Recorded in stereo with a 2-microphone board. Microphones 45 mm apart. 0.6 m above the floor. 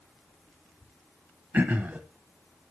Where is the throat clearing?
45° right (ahead or behind), 0.7 m.